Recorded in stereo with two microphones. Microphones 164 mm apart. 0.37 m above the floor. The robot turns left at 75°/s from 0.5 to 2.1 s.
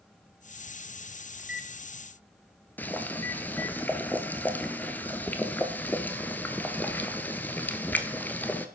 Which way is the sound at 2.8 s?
10° left (ahead or behind).